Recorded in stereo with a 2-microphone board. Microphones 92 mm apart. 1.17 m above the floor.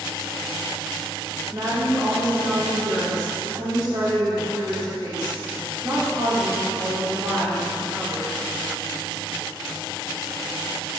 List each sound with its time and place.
1.5 s a woman speaking: 50° right (ahead or behind), 3 m